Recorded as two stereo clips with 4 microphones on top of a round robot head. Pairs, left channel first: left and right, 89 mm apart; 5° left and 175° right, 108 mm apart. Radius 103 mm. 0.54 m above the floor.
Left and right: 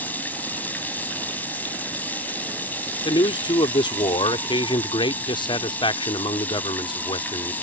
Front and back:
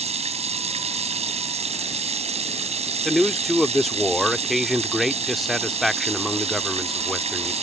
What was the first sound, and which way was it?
Running water, 165° left.